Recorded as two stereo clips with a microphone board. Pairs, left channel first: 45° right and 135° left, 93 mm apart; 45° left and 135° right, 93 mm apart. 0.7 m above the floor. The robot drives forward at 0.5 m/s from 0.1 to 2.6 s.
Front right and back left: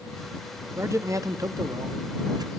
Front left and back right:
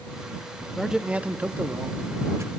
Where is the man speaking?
140° left, 0.7 m; by 2.5 s 170° left, 1.3 m.